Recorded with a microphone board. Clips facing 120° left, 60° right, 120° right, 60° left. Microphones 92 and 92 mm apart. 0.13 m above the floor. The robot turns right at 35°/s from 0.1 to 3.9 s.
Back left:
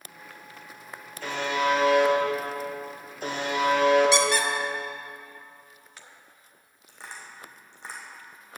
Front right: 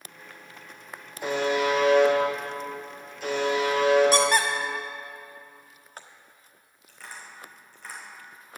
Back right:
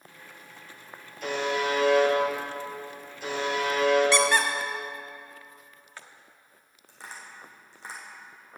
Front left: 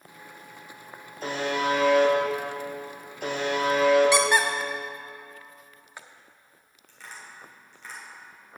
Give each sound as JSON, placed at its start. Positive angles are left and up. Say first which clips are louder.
{"t": 1.2, "sound": "a buzzer", "louder": "front right 2 dB, front left 1 dB", "azimuth_deg": 10, "distance_m": 2.5}
{"t": 4.1, "sound": "a squeak", "louder": "front right 1 dB, front left 1 dB", "azimuth_deg": -15, "distance_m": 1.3}
{"t": 6.9, "sound": "tapping", "louder": "even, back right 1 dB", "azimuth_deg": -175, "distance_m": 3.0}